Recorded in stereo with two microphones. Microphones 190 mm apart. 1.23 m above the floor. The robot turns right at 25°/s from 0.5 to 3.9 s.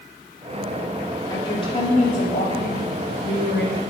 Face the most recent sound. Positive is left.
turn(degrees=85)